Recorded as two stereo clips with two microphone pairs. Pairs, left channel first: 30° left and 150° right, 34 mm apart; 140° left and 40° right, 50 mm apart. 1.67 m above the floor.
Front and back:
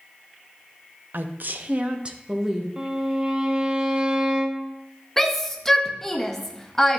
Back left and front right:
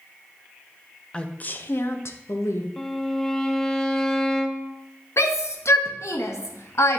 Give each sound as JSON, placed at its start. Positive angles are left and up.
{"t": 1.1, "sound": "a woman speaking", "azimuth_deg": -150, "distance_m": 0.7}
{"t": 2.8, "sound": "a violin", "azimuth_deg": -140, "distance_m": 0.5}
{"t": 5.2, "sound": "a shout", "azimuth_deg": 115, "distance_m": 0.9}